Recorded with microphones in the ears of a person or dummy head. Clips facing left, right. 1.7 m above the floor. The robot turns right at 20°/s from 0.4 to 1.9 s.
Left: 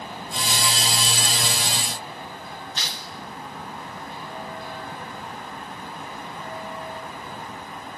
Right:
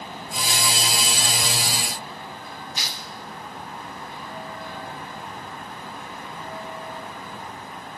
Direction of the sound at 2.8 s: 15° right (ahead or behind).